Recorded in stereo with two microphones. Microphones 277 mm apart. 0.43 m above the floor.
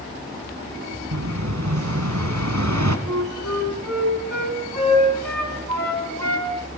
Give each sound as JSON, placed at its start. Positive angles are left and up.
{"t": 1.1, "sound": "an explosion", "side_deg": -70, "distance_m": 1.7}
{"t": 3.1, "sound": "a flute", "side_deg": -70, "distance_m": 5.5}